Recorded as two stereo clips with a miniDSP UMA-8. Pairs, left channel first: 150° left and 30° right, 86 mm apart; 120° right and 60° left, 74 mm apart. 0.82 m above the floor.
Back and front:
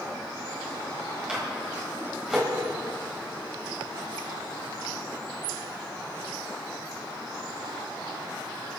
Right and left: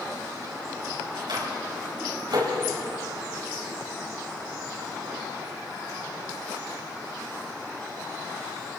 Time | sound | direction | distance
1.3 | a microwave | 50° left | 4.5 m